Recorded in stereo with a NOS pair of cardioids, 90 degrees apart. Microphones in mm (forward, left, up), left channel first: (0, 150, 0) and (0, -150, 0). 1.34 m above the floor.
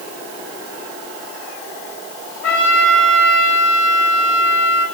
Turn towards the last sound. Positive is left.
turn(degrees=60)